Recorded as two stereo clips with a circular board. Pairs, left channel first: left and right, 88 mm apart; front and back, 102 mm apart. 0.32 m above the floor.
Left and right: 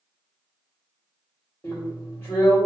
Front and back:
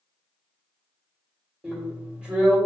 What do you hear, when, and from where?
1.6 s a drill: 110° left, 1.4 m